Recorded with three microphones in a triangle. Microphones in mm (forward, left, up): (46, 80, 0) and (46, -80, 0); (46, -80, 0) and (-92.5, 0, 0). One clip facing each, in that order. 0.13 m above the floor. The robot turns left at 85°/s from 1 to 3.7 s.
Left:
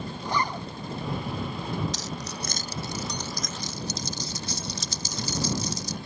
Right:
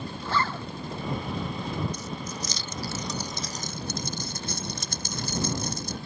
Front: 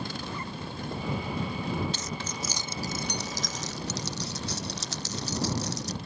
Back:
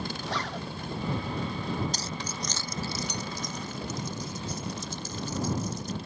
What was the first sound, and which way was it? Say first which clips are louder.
A zipper: even, back 3 dB; 165° left.